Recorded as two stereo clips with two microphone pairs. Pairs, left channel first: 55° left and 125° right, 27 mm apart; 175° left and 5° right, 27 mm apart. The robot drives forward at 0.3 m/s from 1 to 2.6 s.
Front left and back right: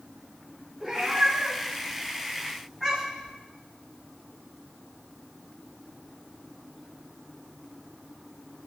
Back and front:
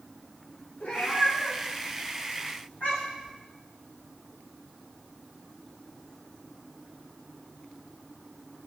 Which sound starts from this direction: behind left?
A cat meowing, at 0.8 s.